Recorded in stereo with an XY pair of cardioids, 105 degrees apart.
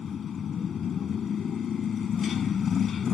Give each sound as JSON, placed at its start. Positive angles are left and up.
{"t": 0.0, "sound": "a motorcycle", "azimuth_deg": 50}